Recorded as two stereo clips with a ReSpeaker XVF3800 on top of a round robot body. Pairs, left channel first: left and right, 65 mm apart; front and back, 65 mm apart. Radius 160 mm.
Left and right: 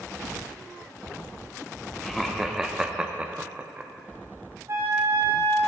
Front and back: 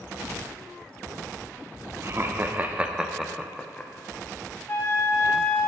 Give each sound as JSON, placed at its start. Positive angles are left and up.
{"t": 2.0, "sound": "laughter", "azimuth_deg": 175, "distance_m": 1.1}
{"t": 4.7, "sound": "a flute", "azimuth_deg": -55, "distance_m": 2.5}